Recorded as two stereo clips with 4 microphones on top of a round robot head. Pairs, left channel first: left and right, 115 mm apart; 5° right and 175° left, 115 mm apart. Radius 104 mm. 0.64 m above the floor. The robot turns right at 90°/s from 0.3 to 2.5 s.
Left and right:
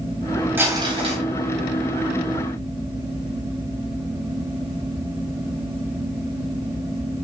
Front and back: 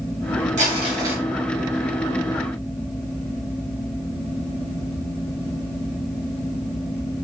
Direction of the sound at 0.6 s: 160° right.